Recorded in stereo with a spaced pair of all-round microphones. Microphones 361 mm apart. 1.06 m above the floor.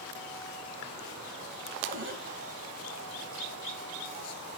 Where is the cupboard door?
30° right (ahead or behind), 2 m.